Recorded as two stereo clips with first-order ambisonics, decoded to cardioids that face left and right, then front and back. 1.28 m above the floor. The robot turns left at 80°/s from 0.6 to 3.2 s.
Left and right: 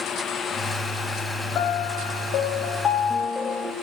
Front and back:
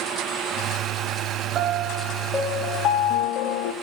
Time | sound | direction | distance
1.6 | a piano | 135° left | 0.6 m